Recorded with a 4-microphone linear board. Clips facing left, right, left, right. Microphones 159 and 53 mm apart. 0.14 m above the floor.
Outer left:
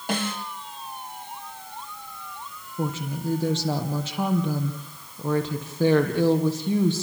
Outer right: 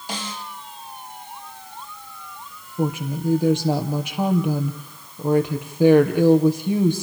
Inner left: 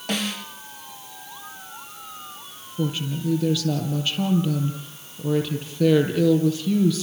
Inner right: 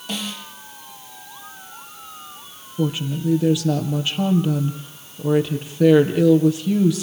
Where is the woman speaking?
15° right (ahead or behind), 4 m.